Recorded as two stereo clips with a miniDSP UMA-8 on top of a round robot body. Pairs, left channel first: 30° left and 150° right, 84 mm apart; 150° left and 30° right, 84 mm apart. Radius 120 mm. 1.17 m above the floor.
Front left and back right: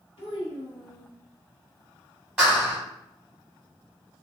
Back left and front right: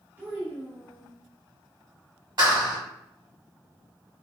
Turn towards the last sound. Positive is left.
turn(degrees=-70)